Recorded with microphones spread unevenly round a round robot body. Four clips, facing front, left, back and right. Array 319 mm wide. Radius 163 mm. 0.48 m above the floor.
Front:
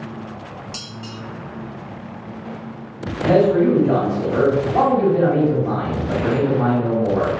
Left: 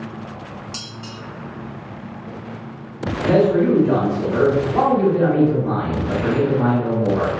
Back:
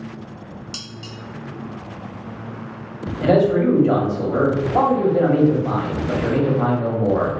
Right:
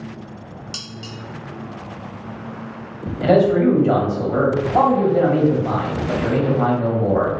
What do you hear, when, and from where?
0.7 s dishes clattering: 170° left, 0.7 m
3.2 s a man speaking: 155° right, 1.5 m